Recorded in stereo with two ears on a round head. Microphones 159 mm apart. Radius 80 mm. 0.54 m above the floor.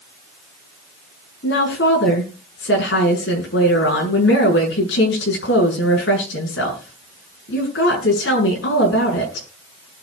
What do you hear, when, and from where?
1.4 s a woman speaking: 70° left (ahead or behind), 7 m